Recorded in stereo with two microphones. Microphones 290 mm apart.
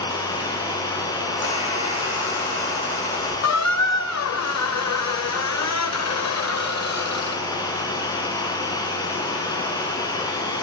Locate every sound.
0.0 s running water: 15° left (ahead or behind), 2.0 m
1.3 s a squeak: 15° left (ahead or behind), 8 m
3.4 s a squeak: 65° left (ahead or behind), 0.6 m